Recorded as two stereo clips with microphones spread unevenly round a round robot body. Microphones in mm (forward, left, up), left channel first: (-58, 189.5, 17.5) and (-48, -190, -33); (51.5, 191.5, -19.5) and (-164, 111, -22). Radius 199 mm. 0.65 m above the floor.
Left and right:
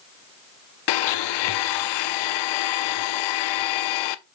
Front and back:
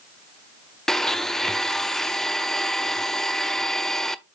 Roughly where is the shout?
No shout in this recording.